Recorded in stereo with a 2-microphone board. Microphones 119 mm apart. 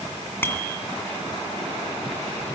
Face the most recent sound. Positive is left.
turn(degrees=20)  # may be behind; listen again after turning